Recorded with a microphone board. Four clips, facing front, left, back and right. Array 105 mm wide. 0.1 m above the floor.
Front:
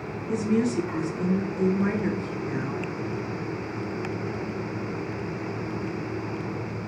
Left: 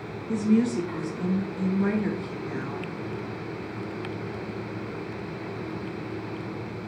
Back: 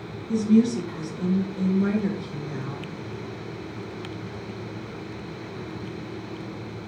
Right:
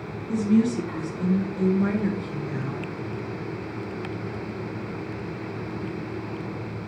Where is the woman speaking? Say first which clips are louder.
Right 1 dB, back 4 dB; 15° left, 1.4 m.